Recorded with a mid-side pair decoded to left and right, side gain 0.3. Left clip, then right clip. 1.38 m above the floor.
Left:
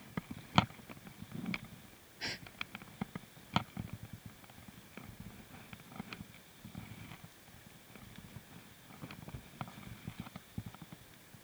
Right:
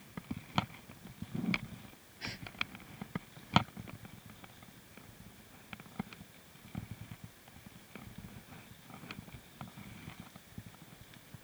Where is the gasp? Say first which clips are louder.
Left 2 dB; 45° left.